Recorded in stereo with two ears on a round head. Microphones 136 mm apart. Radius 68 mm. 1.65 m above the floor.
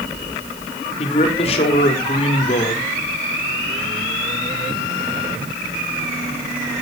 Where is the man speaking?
40° left (ahead or behind), 4 m.